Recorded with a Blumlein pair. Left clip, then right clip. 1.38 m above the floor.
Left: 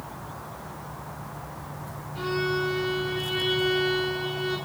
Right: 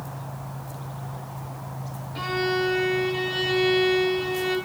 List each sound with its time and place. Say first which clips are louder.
2.1 s a violin: right 2 dB; 60° right, 1.3 m